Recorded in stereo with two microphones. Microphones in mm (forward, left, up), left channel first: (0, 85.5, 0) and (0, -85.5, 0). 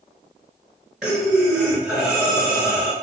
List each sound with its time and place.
1.0 s breathing: 5° right (ahead or behind), 2.5 m